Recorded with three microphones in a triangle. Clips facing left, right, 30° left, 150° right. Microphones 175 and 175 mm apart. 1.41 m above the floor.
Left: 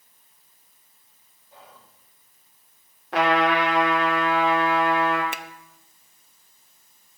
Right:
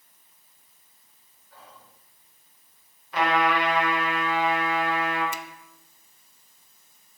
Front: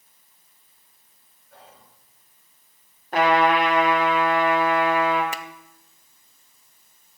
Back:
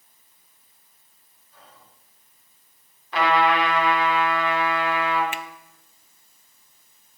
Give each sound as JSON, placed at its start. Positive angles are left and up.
{"t": 1.5, "sound": "whispering", "azimuth_deg": 20, "distance_m": 6.5}
{"t": 3.1, "sound": "a trumpet", "azimuth_deg": 75, "distance_m": 3.5}
{"t": 5.3, "sound": "a finger snap", "azimuth_deg": 75, "distance_m": 0.6}